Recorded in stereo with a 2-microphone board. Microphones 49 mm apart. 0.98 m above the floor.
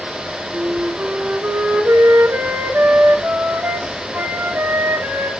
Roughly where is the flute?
Right.